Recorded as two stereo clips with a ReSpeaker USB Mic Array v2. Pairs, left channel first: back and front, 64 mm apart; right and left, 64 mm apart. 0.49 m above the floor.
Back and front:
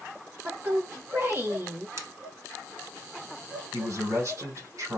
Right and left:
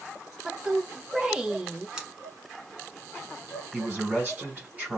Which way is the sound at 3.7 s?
30° left.